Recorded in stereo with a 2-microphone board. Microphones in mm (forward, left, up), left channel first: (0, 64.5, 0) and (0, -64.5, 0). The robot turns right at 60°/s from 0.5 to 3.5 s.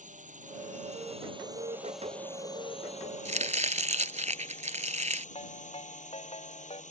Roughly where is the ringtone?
Left.